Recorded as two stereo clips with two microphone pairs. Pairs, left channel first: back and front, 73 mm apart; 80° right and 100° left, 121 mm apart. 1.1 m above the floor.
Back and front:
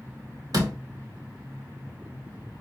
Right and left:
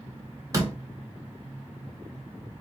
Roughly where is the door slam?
Ahead left.